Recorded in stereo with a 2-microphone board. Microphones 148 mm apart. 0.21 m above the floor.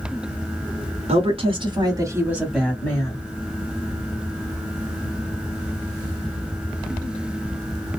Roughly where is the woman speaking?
Right.